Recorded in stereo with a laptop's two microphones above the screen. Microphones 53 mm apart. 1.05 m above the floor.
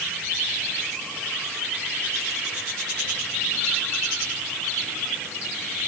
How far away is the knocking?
No knocking in this recording.